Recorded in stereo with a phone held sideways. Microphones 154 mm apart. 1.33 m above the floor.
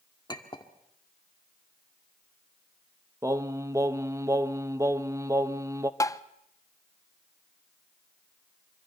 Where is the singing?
20° right (ahead or behind), 0.9 m.